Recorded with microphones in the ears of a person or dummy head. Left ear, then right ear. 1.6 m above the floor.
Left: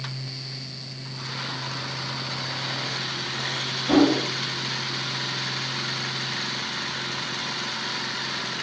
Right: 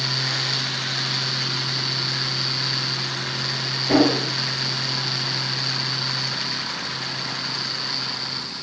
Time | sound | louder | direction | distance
3.9 | a whoosh | right 1 dB | 20° left (ahead or behind) | 2.0 m